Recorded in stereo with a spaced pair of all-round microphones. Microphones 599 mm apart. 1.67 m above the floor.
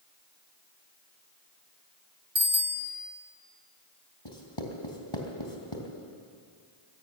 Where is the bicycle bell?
60° right (ahead or behind), 2.5 m.